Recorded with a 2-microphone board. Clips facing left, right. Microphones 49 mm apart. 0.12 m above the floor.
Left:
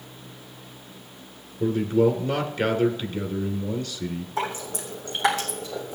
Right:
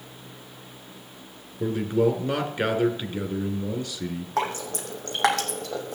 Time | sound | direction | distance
1.6 | a man speaking | 15° right (ahead or behind) | 1.7 m
4.4 | dripping | 65° right (ahead or behind) | 2.5 m